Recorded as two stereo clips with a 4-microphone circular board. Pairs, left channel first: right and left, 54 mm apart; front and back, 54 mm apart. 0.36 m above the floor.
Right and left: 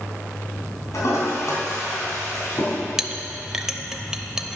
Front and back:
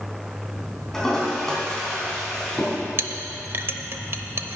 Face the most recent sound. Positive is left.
turn(degrees=165)